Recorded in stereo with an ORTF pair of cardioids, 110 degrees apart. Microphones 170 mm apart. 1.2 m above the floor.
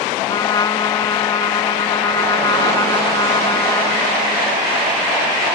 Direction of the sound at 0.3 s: 25° left.